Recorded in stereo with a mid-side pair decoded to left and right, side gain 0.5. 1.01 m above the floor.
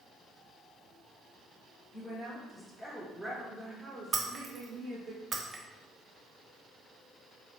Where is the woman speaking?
10° left, 1.8 m; by 5.1 s 75° right, 1.2 m.